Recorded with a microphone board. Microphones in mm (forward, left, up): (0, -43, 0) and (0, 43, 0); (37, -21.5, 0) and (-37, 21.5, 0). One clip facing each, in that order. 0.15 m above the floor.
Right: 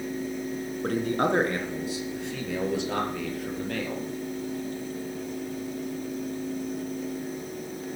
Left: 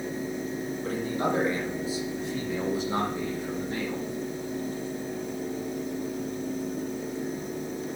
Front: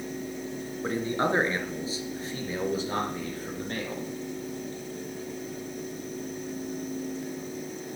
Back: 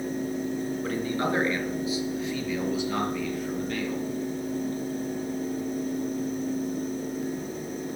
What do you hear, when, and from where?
0.8 s a man speaking: 90° right, 2.5 m; by 4.0 s 80° right, 5 m